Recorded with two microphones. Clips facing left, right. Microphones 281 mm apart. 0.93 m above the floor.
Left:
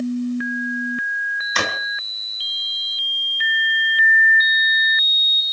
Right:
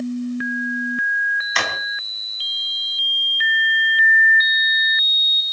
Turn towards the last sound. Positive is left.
turn(degrees=45)  # may be behind; listen again after turning